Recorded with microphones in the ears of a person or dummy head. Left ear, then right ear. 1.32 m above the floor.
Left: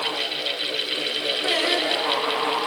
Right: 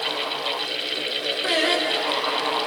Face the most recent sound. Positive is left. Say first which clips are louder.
# right 1 dB
turn(degrees=-25)  # may be behind; listen again after turning